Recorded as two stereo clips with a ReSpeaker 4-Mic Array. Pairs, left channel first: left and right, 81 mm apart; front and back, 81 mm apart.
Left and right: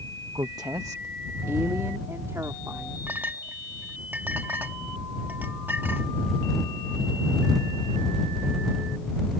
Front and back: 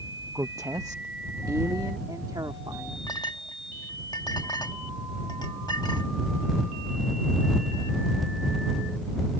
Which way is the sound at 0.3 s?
125° right.